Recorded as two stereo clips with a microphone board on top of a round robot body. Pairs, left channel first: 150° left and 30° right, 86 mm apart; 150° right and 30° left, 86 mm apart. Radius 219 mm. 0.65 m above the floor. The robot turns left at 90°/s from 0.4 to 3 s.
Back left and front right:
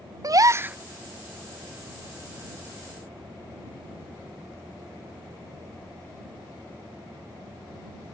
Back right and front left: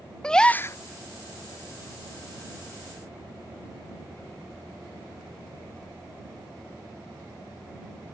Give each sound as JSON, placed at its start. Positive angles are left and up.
{"t": 0.2, "sound": "a gasp", "azimuth_deg": -70}